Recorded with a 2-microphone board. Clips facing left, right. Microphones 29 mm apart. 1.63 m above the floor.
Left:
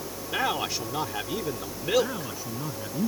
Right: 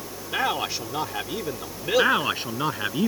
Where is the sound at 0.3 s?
10° right (ahead or behind).